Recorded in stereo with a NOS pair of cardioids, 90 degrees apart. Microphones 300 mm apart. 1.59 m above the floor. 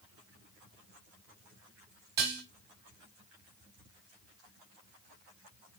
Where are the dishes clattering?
65° right, 1.7 m.